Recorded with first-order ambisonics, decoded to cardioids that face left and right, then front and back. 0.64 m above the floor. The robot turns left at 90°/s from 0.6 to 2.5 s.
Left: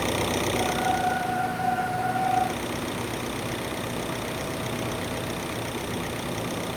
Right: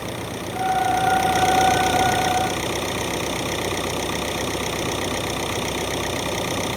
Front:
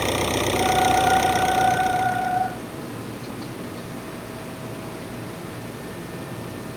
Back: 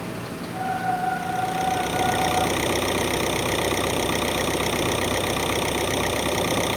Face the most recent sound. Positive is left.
turn(degrees=-155)